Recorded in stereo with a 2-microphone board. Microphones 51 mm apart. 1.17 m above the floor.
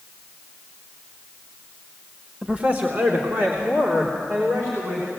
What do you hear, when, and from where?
2.4 s a man speaking: 20° right (ahead or behind), 1.1 m; by 5.1 s 70° right (ahead or behind), 5 m